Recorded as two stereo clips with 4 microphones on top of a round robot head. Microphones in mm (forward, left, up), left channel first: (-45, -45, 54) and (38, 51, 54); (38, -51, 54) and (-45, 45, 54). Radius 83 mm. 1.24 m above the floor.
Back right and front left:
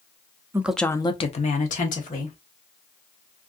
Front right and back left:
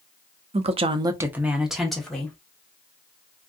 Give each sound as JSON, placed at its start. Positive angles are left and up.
{"t": 0.5, "sound": "a woman speaking", "azimuth_deg": 115, "distance_m": 0.5}